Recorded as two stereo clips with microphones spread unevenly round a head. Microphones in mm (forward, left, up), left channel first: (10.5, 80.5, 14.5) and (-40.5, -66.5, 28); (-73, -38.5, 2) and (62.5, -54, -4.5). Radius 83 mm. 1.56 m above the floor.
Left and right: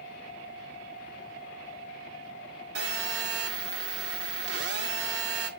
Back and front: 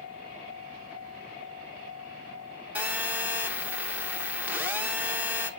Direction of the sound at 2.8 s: 85° right.